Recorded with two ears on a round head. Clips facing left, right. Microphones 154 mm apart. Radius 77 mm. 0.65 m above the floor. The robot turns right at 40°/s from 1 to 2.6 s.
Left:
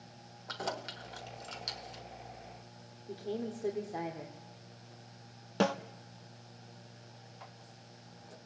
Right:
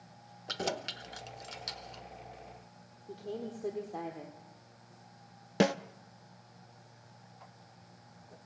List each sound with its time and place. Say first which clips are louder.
0.5 s keys jangling: right 3 dB; 30° right (ahead or behind), 1.1 m; by 2.0 s 10° left (ahead or behind), 1.1 m
3.1 s a woman speaking: left 2 dB; 5° left (ahead or behind), 2.0 m
5.6 s a snare drum: right 2 dB; 20° right (ahead or behind), 0.6 m